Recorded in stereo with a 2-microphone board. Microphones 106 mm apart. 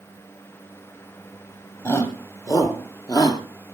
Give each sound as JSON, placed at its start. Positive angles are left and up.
{"t": 1.9, "sound": "a shout", "side_deg": 30, "distance_m": 4.0}